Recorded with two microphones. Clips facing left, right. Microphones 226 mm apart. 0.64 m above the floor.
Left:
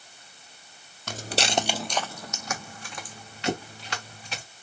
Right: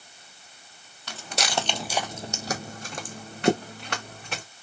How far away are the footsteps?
About 0.8 m.